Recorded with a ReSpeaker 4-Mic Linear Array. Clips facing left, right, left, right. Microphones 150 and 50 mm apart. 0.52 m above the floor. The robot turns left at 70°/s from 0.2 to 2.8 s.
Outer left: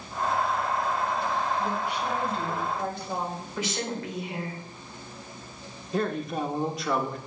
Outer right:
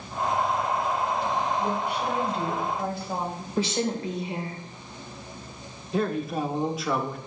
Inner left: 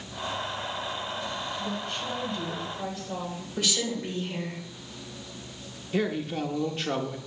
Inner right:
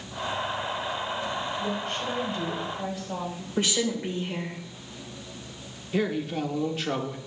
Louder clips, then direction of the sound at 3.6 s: Outer right 6 dB, inner right 3 dB; 30° right (ahead or behind).